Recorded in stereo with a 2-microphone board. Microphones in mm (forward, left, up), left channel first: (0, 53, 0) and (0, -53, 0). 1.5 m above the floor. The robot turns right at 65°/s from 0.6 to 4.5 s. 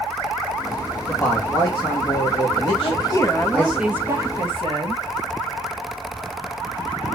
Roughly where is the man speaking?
Ahead.